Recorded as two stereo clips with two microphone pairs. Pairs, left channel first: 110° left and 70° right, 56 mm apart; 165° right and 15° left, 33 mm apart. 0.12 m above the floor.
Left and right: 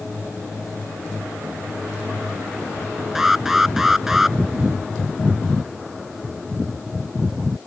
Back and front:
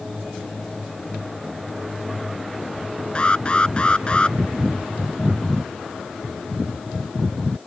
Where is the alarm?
150° right.